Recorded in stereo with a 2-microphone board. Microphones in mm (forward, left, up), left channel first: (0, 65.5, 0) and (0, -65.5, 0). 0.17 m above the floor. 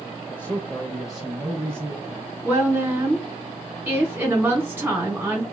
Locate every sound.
0.3 s a man speaking: 15° left (ahead or behind), 1.1 m; by 2.3 s 25° right (ahead or behind), 1.2 m
2.4 s a woman speaking: 15° right (ahead or behind), 1.8 m